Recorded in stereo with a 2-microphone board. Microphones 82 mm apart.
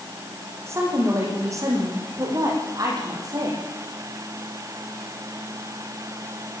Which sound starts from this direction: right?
A woman speaking, at 0.7 s.